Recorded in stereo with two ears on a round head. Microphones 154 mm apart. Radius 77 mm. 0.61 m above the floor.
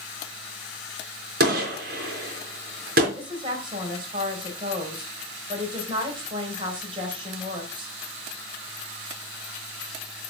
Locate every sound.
1.4 s a gunshot: 55° right (ahead or behind), 3.5 m
3.1 s a woman speaking: 30° right (ahead or behind), 3.5 m